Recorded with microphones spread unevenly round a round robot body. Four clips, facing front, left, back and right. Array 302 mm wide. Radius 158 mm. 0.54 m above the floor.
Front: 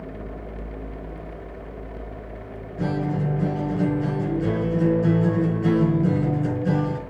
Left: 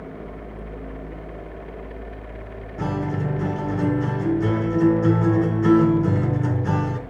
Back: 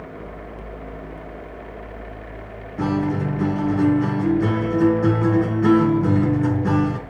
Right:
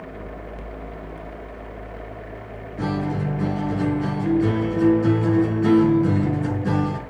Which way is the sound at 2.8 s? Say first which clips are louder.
Right 1 dB, back 4 dB; 175° left.